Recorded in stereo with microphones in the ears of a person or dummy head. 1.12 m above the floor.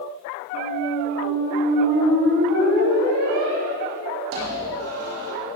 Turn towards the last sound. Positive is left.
turn(degrees=-65)  # may be behind; listen again after turning